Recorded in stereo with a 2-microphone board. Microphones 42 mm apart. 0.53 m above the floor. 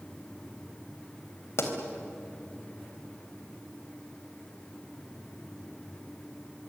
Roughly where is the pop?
Left.